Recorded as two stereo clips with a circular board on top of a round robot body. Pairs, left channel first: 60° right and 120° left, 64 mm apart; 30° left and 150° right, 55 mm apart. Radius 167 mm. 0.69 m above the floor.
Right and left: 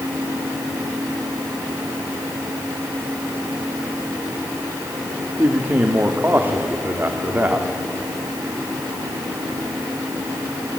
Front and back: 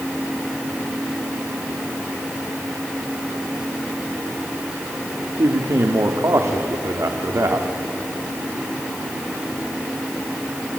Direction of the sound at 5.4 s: Straight behind.